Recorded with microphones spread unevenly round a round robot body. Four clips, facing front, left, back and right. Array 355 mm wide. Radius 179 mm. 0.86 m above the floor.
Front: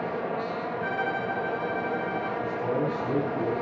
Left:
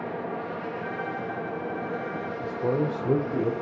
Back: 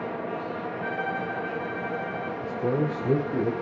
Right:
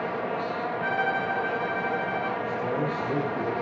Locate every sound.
0.8 s a violin: 80° right, 4.5 m
2.4 s a man speaking: 145° left, 3 m